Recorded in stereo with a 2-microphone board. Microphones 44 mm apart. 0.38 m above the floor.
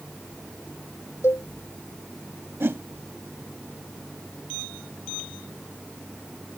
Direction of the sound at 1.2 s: 85° left.